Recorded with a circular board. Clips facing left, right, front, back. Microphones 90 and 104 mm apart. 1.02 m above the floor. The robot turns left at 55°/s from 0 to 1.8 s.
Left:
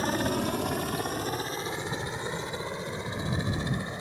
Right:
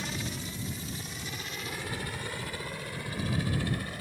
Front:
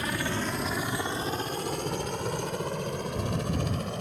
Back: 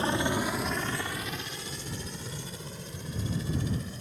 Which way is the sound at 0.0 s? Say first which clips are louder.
Left 10 dB, back 3 dB; 125° left.